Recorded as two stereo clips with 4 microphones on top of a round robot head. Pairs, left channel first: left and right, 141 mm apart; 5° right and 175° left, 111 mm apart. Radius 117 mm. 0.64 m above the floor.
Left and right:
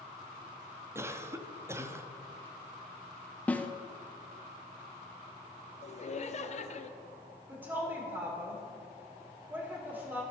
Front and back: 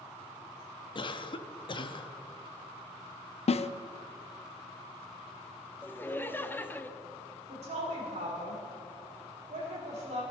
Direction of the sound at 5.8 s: 65° left.